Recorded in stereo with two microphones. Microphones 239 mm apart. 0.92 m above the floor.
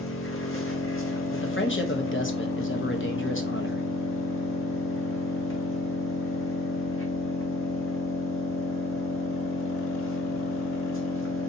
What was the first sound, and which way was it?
An engine running, 60° left (ahead or behind).